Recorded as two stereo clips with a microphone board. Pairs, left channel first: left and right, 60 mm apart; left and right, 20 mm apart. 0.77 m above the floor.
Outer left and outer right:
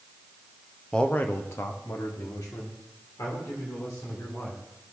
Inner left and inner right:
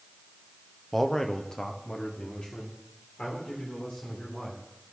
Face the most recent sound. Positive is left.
turn(degrees=75)  # may be behind; listen again after turning